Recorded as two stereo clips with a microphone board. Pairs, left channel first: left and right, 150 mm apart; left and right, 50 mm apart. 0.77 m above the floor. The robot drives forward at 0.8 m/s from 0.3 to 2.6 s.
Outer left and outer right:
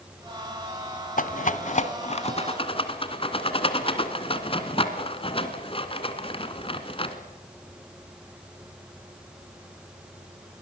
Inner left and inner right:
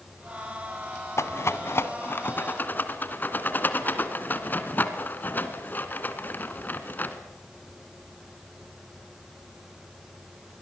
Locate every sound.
1.2 s a rattle: 65° left (ahead or behind), 1.2 m; by 7.2 s 40° left (ahead or behind), 1.8 m